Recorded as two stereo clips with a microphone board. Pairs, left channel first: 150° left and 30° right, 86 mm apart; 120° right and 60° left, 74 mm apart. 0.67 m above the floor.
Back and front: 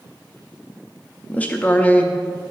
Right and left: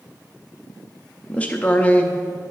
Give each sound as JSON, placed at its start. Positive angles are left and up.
{"t": 1.3, "sound": "a man speaking", "azimuth_deg": -165, "distance_m": 0.6}